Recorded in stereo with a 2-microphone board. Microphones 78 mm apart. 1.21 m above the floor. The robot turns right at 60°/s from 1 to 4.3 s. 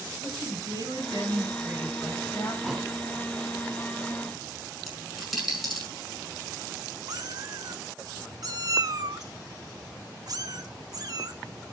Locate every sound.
0.2 s a woman speaking: 55° right, 7 m; by 2.5 s 40° left, 7 m
2.6 s a thud: 5° right (ahead or behind), 2 m; by 2.9 s 10° left (ahead or behind), 2 m
4.9 s a dropped coin: centre (ahead or behind), 6.5 m
7.1 s a cat meowing: 50° right (ahead or behind), 1.0 m